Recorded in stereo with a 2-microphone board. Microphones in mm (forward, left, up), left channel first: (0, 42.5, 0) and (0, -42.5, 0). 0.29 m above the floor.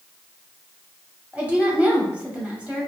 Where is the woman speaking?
15° right (ahead or behind), 1.3 m.